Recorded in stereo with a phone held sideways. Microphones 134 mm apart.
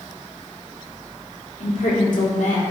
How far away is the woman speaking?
About 2.5 m.